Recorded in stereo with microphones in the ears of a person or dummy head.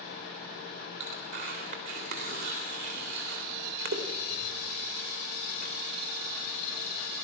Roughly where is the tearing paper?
Right.